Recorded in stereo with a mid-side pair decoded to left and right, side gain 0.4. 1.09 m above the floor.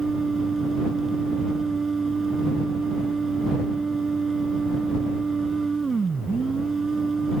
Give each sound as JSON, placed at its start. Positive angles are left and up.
{"t": 0.0, "sound": "a machine running", "azimuth_deg": -35}